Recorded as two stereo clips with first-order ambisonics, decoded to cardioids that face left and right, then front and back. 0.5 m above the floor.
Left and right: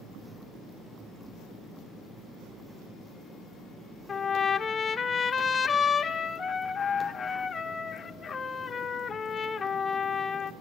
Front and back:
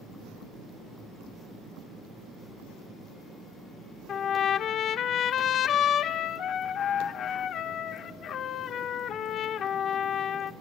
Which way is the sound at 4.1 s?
30° left.